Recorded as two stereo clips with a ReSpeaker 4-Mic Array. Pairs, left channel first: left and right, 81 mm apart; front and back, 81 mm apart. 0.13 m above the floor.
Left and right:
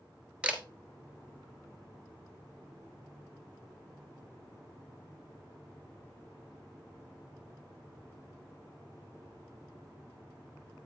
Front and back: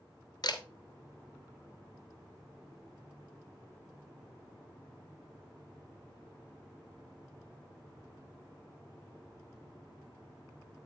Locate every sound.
0.4 s a camera shutter: 15° right, 1.2 m